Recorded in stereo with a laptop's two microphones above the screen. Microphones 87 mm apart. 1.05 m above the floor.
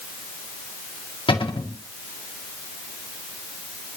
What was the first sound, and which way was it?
A cupboard door, 85° left.